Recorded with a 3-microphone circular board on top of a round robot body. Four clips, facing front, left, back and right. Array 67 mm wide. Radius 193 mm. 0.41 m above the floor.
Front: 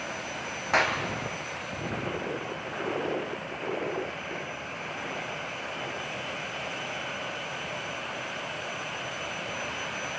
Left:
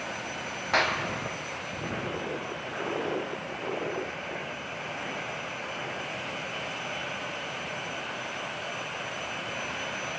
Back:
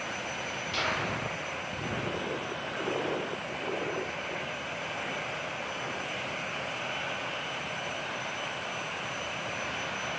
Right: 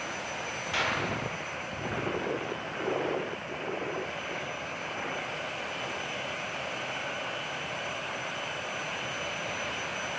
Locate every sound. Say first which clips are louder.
0.7 s a clap: left 5 dB, front 7 dB; 30° left, 2.5 m